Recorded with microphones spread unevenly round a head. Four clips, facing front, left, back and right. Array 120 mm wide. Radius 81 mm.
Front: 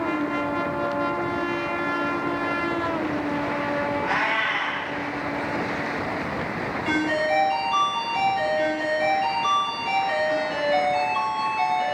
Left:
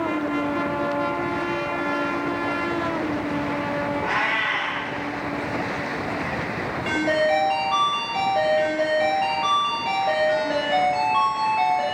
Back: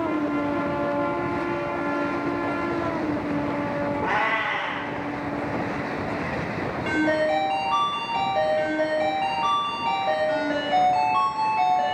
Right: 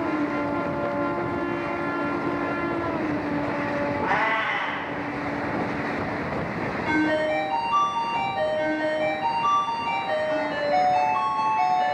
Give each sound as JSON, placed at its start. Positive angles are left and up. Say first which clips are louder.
{"t": 4.0, "sound": "a cat meowing", "louder": "right 1 dB, even", "azimuth_deg": -145, "distance_m": 3.0}
{"t": 6.8, "sound": "a ringtone", "louder": "left 2 dB, back 2 dB", "azimuth_deg": 130, "distance_m": 6.0}